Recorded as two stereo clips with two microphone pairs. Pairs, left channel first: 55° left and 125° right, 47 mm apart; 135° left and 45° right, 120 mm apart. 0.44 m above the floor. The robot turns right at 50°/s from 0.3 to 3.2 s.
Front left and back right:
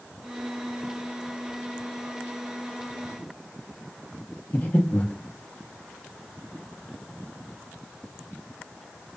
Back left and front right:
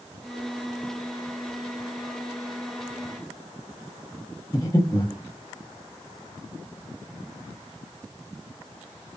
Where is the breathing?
90° left, 1.7 m.